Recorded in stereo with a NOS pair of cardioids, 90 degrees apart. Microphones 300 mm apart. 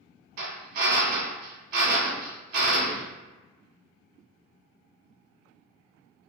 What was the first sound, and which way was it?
A drill, 65° right.